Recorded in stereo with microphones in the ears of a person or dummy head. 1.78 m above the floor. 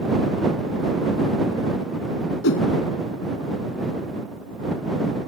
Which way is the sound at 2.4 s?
65° left (ahead or behind).